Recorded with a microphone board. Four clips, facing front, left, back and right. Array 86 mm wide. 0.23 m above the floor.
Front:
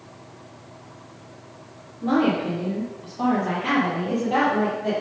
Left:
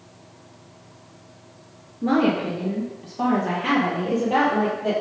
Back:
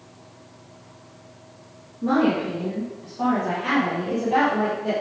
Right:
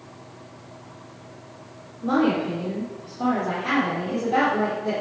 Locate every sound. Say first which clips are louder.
2.0 s a woman speaking: left 1 dB, even; 100° left, 5 m; by 4.9 s 80° left, 7.5 m